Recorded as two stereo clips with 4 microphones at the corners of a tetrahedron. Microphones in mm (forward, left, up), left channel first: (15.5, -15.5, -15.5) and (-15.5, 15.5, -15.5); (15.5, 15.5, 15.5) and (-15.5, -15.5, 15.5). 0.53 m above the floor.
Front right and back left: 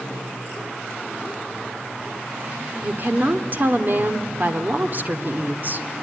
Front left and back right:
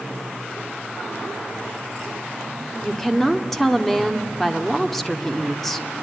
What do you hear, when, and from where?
2.8 s a woman speaking: 125° left, 1.6 m